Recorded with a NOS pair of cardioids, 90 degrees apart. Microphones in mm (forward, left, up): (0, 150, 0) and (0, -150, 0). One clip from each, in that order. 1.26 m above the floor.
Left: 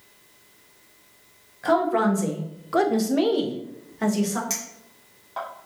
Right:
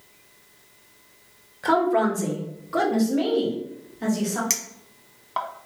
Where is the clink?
45° right, 0.9 m.